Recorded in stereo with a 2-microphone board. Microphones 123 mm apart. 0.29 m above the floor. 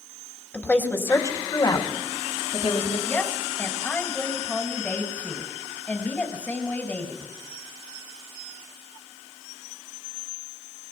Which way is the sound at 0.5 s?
10° left (ahead or behind).